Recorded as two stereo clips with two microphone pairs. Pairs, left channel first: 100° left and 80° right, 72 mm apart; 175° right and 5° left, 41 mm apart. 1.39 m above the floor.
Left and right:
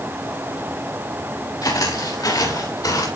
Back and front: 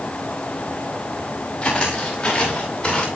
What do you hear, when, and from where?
1.6 s footsteps: 115° left, 8 m